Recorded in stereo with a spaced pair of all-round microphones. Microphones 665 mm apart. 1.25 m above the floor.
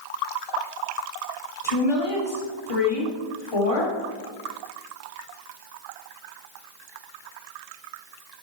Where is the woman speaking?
55° left (ahead or behind), 3 m.